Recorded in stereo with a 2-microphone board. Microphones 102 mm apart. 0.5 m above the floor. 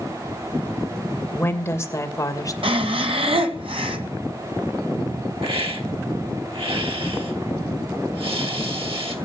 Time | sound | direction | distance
1.3 | a woman speaking | 20° left (ahead or behind) | 2.5 m
2.6 | breathing | 65° right (ahead or behind) | 2.0 m
5.4 | a hiss | 65° right (ahead or behind) | 2.5 m